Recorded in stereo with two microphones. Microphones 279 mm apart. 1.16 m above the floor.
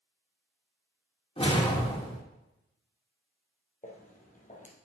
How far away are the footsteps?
About 2 m.